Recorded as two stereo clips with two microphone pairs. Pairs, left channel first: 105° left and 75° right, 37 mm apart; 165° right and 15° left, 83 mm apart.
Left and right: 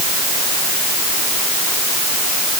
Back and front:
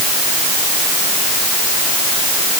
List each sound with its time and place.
Only background noise.